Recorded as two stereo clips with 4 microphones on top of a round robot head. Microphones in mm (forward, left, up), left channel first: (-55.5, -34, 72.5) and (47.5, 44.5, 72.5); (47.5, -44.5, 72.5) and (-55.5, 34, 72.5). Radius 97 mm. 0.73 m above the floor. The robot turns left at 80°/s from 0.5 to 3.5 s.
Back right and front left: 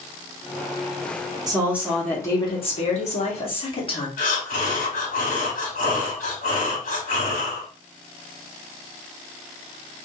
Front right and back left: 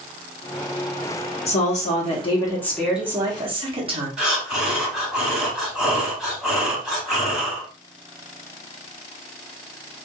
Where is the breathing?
130° right, 1.8 m.